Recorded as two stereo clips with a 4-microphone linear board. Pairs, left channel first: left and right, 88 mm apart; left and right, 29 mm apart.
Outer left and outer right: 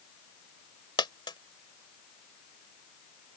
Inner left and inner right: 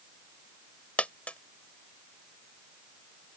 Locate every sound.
1.0 s a dropped coin: 60° left (ahead or behind)